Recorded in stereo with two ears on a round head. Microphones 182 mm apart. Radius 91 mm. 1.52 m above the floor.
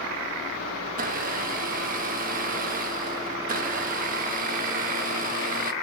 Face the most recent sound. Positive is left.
turn(degrees=-40)  # may be behind; listen again after turning